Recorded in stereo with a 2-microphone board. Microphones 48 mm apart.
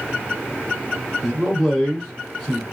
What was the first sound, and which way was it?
A man speaking, 5° left (ahead or behind).